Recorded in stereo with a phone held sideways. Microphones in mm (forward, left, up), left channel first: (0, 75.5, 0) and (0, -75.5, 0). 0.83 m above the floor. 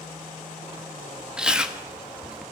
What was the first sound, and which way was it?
Chewing, 5° right (ahead or behind).